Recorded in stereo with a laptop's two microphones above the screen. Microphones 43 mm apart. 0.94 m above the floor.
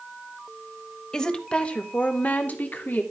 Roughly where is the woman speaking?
Centre.